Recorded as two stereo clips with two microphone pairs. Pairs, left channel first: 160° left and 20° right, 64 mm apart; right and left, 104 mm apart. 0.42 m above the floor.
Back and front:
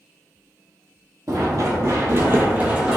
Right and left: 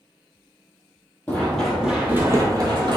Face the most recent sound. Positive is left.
turn(degrees=60)